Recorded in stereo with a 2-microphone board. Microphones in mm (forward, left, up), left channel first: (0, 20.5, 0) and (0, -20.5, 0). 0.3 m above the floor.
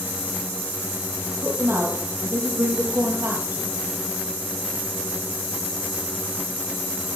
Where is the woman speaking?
60° right (ahead or behind), 8 m.